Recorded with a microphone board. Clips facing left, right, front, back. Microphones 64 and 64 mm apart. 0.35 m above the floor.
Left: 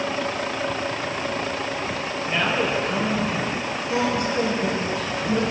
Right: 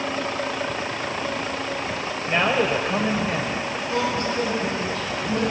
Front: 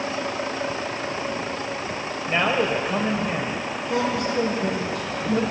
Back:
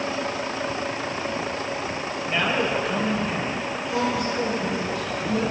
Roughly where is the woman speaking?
Ahead.